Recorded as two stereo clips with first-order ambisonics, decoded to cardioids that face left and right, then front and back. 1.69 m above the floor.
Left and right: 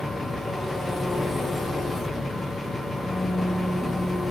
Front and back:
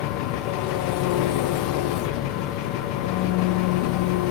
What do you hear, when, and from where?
0.0 s an engine running: 5° left, 1.0 m